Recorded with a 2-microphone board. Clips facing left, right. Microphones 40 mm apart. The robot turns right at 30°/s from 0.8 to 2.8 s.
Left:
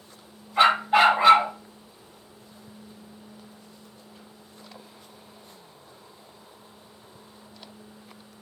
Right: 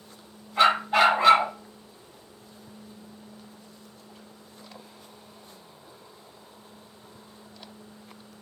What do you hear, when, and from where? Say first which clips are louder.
0.6 s a dog barking: left 2 dB; 20° left (ahead or behind), 1.4 m; by 1.5 s centre (ahead or behind), 1.4 m